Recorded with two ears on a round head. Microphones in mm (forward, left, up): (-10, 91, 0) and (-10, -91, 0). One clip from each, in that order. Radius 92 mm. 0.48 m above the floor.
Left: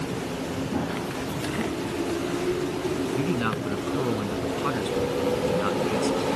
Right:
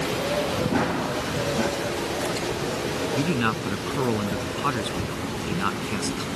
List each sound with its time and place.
0.7 s running footsteps: 65° right (ahead or behind)
3.1 s a man speaking: 10° right (ahead or behind)